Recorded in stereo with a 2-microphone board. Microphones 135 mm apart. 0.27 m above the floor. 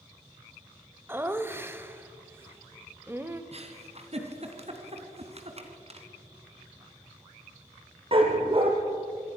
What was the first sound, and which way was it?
Laughter, 15° right (ahead or behind).